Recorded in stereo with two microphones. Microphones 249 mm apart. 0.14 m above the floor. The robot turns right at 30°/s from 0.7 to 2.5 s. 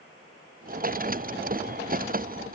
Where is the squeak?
I don't hear a squeak.